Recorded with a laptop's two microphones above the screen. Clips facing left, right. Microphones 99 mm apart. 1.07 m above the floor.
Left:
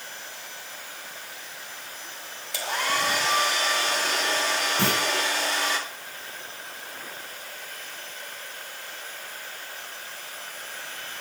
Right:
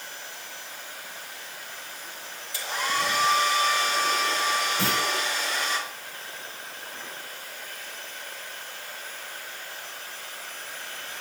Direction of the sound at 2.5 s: 75° left (ahead or behind).